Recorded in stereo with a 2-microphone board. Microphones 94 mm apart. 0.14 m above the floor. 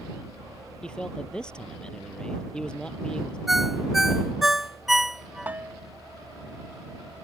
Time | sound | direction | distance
0.8 | a man speaking | 10° left (ahead or behind) | ?
3.5 | a ringtone | centre (ahead or behind) | ?
5.5 | a bell | 20° right (ahead or behind) | ?